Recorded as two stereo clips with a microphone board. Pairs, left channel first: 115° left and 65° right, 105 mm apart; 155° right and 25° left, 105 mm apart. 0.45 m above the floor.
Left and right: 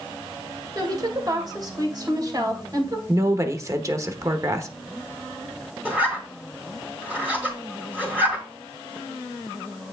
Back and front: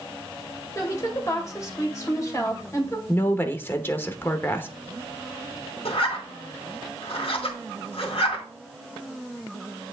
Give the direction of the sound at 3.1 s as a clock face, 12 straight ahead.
3 o'clock.